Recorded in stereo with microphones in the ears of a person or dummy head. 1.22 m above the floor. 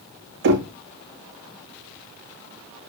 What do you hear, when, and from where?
0.4 s knocking: 60° right (ahead or behind), 1.5 m